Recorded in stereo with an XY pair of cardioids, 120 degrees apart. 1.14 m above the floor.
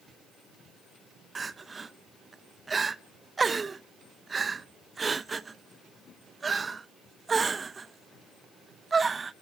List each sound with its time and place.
1.4 s crying: 25° right, 0.6 m